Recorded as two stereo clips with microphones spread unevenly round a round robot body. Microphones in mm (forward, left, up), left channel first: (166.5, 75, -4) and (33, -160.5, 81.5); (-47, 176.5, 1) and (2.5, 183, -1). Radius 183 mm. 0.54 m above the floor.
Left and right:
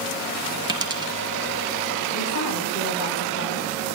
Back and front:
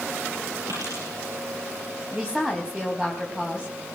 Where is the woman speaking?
80° left, 4.5 m.